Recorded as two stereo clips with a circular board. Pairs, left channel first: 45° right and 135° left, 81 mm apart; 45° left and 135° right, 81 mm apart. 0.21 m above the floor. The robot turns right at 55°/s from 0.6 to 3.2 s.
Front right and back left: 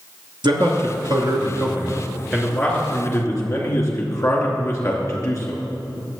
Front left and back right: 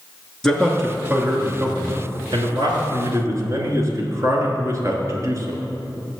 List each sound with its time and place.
0.4 s a man speaking: 125° left, 2.5 m; by 5.6 s 90° right, 2.5 m